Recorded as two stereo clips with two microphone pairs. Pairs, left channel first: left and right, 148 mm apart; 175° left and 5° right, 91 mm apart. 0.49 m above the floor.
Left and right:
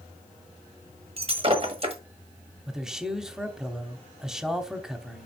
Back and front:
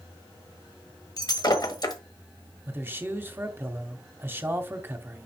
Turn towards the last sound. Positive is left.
turn(degrees=-5)